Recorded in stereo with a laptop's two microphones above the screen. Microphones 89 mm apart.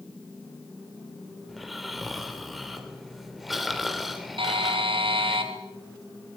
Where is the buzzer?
85° right, 5.5 m.